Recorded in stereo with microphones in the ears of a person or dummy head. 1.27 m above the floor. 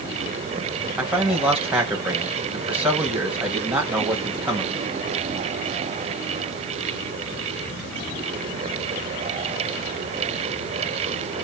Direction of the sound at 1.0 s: 5° right (ahead or behind).